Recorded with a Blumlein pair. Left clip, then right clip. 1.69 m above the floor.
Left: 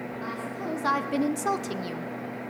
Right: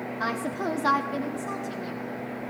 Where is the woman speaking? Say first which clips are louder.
Right 7 dB; 40° right, 0.8 m; by 2.1 s 75° left, 0.9 m.